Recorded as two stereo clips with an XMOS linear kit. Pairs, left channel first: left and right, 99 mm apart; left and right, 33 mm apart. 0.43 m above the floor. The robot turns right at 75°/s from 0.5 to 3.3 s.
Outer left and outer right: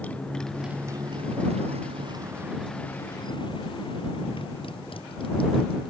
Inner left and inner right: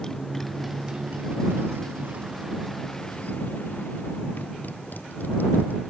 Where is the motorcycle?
15° left (ahead or behind); by 5.9 s 60° left (ahead or behind).